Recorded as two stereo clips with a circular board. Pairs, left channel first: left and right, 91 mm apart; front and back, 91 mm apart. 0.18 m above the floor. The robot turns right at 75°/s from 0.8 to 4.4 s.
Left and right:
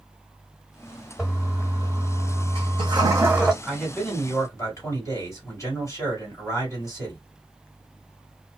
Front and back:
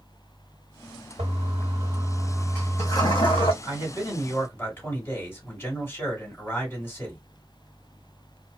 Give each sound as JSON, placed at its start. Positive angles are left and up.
{"t": 1.2, "sound": "a toilet flushing", "azimuth_deg": 180, "distance_m": 1.5}
{"t": 3.6, "sound": "a man speaking", "azimuth_deg": 0, "distance_m": 2.0}